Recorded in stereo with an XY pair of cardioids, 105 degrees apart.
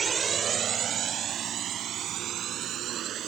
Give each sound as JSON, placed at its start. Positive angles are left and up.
{"t": 0.0, "sound": "a drone", "azimuth_deg": -35}